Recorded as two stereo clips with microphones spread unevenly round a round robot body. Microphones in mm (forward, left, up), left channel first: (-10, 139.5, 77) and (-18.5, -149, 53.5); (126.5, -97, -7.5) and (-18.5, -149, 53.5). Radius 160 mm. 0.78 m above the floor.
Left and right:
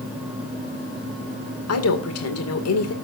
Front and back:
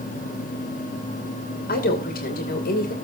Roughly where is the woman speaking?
Ahead left.